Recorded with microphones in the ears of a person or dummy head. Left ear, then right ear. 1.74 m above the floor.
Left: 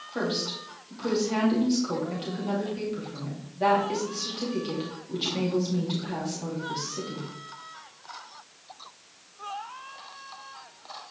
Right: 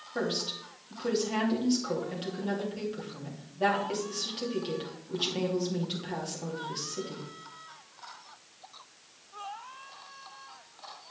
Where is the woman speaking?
15° right (ahead or behind), 2.5 m.